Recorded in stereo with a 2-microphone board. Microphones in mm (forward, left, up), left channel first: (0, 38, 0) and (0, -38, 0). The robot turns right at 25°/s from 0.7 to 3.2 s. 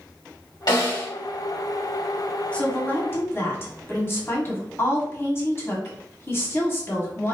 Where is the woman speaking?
15° left (ahead or behind), 1.4 m; by 7.3 s 30° left (ahead or behind), 1.4 m.